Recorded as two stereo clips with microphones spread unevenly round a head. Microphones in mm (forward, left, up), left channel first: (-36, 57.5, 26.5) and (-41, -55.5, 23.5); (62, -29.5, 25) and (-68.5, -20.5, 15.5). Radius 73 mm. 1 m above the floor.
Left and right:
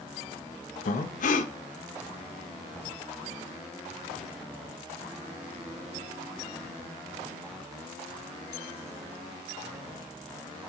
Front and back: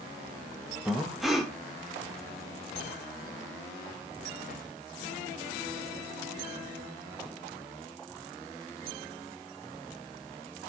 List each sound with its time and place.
0.8 s breathing: 85° left, 0.7 m